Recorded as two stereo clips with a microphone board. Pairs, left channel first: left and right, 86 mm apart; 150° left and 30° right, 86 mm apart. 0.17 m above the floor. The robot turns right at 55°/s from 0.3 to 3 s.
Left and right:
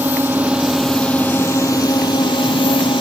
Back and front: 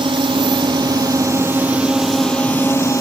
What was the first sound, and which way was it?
A drone, 25° right.